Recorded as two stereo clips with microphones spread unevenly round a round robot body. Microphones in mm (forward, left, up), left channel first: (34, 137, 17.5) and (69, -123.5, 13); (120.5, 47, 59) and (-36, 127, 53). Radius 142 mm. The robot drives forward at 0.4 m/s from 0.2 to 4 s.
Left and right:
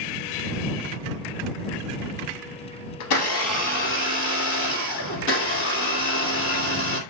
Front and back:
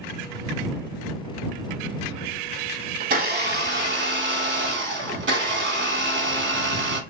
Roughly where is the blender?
Behind left.